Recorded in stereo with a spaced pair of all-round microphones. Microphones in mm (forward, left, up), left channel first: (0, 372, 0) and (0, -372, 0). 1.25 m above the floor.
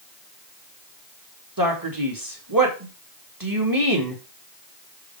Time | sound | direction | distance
1.6 | a man speaking | 25° right (ahead or behind) | 2.5 m